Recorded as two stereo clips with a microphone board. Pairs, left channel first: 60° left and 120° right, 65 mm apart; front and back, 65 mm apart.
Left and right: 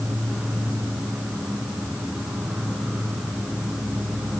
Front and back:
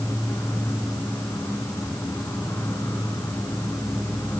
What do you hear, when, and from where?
0.0 s an insect: 40° right, 3 m